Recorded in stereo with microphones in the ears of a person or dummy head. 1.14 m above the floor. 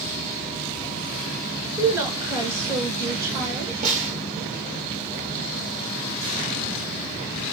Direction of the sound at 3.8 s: 40° right (ahead or behind).